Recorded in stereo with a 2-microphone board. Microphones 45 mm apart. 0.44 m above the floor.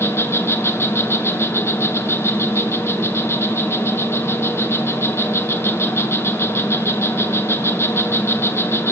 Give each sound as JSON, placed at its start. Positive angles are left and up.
{"t": 0.0, "sound": "an insect", "side_deg": 60, "distance_m": 1.4}